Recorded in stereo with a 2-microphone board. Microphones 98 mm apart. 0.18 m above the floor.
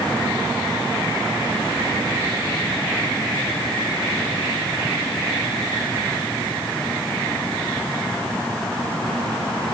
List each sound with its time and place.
Only background noise.